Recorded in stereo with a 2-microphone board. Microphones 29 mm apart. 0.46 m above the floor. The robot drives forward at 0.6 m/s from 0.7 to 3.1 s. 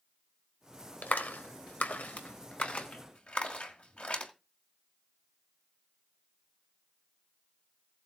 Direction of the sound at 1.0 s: 65° left (ahead or behind).